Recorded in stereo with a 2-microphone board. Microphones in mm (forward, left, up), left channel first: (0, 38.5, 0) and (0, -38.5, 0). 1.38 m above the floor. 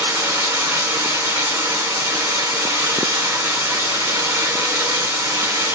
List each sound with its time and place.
0.0 s running water: 35° right (ahead or behind), 0.7 m